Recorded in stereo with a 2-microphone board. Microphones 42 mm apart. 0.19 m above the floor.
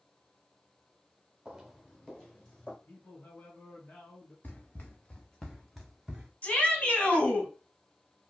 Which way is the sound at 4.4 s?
45° left (ahead or behind).